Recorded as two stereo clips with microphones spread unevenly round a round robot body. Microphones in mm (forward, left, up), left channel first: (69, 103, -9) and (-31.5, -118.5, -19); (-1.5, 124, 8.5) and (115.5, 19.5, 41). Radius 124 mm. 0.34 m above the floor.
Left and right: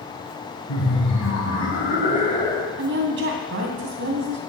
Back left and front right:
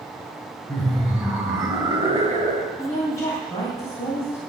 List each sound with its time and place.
0.7 s laughter: 60° left, 3.5 m; by 2.7 s 10° right, 2.5 m
2.8 s a woman speaking: 155° right, 2.5 m